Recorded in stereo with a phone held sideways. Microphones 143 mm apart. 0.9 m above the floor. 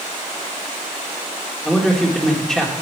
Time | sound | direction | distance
1.6 | a man speaking | centre (ahead or behind) | 2 m